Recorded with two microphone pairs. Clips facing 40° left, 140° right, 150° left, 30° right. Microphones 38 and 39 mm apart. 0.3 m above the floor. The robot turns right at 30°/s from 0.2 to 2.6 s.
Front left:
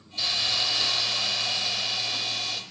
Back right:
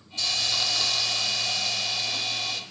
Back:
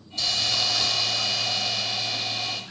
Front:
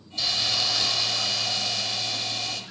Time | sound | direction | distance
0.2 | a hiss | 35° left | 1.1 m